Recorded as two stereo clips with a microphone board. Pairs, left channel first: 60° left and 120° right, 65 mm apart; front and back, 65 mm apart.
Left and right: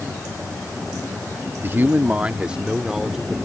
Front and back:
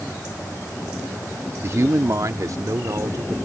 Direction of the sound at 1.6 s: 160° right.